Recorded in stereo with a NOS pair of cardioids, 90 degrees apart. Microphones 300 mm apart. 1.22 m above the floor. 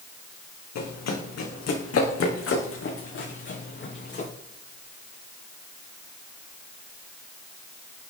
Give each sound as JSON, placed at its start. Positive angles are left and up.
{"t": 0.8, "sound": "running footsteps", "azimuth_deg": 65, "distance_m": 4.5}